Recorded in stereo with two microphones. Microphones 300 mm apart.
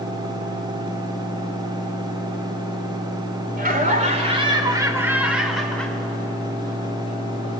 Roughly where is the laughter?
Right.